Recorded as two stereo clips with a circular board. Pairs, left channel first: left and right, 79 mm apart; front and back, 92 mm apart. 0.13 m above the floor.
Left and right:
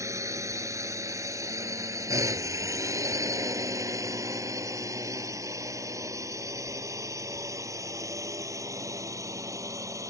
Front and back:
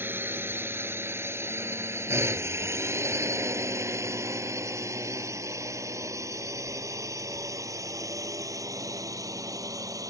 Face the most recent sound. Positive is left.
turn(degrees=-130)